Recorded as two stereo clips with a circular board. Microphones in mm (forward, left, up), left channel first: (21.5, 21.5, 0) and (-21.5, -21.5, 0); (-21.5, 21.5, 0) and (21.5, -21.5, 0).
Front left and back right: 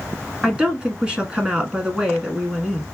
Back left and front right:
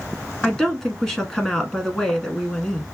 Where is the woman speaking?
160° right, 1.1 m.